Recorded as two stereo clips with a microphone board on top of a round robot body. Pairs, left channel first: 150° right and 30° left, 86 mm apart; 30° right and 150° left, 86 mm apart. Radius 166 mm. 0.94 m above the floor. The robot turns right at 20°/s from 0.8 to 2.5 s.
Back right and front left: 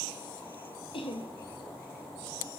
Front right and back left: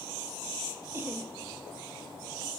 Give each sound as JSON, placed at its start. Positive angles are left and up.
{"t": 0.9, "sound": "laughter", "azimuth_deg": -150, "distance_m": 1.4}